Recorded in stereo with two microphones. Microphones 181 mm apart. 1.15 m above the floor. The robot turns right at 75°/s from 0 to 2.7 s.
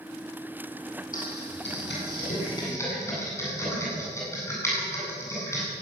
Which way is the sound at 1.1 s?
45° left (ahead or behind).